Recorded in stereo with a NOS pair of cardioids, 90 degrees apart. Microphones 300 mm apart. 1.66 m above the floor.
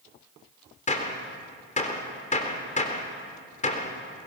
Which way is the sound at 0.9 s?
25° left.